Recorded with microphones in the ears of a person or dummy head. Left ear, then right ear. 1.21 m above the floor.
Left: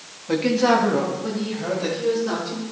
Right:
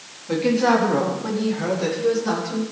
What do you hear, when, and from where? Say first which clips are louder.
0.3 s a woman speaking: even; 20° left (ahead or behind), 1.5 m; by 2.6 s 65° right (ahead or behind), 3 m